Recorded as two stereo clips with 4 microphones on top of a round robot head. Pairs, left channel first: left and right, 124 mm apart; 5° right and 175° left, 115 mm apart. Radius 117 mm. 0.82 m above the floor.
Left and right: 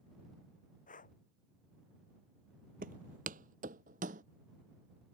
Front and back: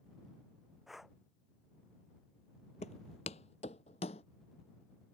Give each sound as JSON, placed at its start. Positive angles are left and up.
{"t": 0.9, "sound": "breathing", "azimuth_deg": 85}
{"t": 2.8, "sound": "footsteps", "azimuth_deg": -55}